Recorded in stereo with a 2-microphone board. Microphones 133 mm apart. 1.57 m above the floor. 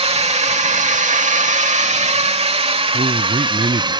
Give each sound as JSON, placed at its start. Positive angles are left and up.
{"t": 0.0, "sound": "a drone", "side_deg": -50}
{"t": 2.9, "sound": "a man speaking", "side_deg": -65}